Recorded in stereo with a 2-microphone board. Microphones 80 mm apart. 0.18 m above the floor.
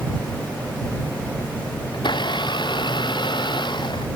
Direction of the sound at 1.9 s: 75° left (ahead or behind).